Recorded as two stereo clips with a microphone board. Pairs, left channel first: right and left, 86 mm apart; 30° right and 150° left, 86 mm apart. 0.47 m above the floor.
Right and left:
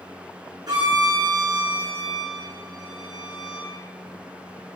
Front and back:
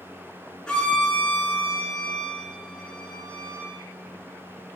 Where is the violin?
50° left, 7 m.